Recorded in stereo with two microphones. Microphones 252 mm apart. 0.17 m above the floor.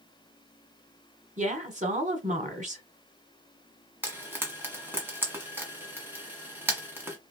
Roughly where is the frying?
Centre.